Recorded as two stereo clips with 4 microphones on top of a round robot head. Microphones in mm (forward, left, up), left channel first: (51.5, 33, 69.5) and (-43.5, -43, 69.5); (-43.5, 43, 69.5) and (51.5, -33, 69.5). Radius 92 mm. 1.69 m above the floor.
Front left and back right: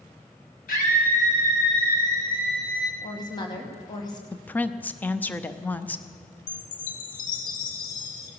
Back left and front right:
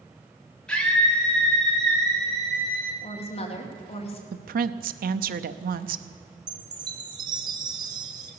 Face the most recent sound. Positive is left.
turn(degrees=20)